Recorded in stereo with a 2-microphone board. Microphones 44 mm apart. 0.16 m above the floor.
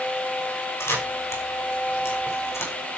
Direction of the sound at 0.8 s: 85° left.